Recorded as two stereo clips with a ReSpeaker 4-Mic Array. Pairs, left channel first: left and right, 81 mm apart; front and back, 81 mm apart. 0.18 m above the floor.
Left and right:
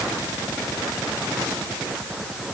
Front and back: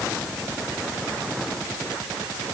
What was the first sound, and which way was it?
Only background noise.